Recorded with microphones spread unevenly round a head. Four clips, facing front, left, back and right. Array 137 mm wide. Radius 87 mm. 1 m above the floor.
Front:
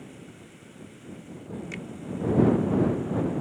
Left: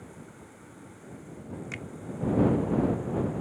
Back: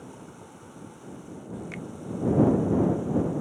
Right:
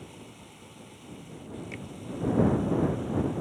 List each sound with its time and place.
0.0 s running water: 175° right
1.7 s a finger snap: 105° left